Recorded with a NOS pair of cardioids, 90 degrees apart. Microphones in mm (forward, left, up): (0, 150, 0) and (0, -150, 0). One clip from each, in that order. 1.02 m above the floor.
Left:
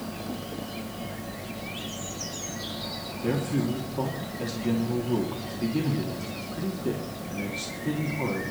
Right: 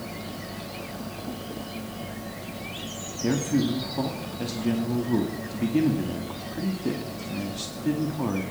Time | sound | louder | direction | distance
3.2 | a man speaking | right 3 dB | 25° right | 2.5 m